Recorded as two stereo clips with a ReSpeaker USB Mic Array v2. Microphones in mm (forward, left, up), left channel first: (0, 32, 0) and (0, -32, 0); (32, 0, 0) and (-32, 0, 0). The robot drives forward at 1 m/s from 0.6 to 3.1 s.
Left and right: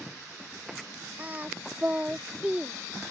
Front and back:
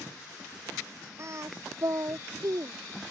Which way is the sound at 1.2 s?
150° right.